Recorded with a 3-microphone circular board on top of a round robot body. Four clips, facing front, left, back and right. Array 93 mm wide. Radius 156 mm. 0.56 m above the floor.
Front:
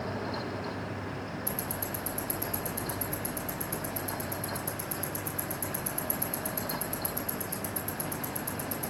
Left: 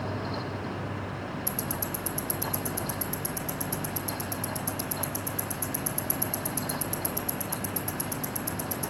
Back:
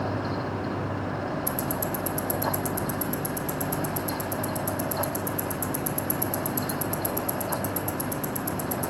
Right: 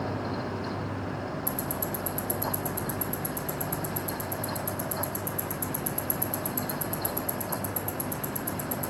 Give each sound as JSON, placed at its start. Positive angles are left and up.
{"t": 1.5, "sound": "ticking", "azimuth_deg": 150, "distance_m": 1.6}